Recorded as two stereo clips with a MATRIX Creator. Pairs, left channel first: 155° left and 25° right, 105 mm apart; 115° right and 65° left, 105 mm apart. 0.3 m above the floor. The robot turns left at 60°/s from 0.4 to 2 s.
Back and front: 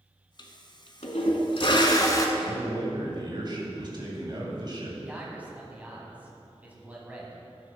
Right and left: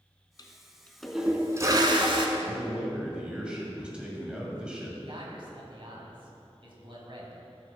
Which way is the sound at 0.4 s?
160° right.